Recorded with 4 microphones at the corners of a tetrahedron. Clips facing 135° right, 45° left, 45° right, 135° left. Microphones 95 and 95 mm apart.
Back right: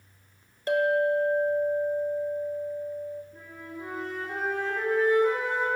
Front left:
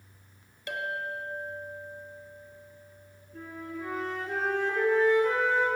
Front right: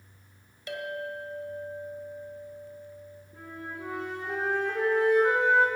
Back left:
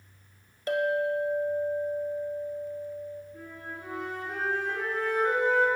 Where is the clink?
175° left, 1.3 m.